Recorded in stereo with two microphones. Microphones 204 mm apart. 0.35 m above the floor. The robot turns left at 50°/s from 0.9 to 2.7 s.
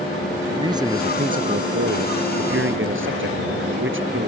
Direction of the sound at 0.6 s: 20° right.